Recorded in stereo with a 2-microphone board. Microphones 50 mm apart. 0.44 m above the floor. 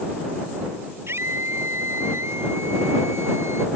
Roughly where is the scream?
Right.